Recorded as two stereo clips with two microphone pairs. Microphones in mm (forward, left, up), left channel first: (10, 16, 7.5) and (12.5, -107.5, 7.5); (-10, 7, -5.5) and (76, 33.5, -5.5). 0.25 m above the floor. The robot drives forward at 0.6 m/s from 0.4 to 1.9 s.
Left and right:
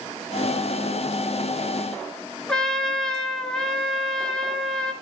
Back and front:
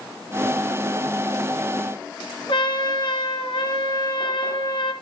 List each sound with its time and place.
2.5 s a trumpet: 175° left, 3.5 m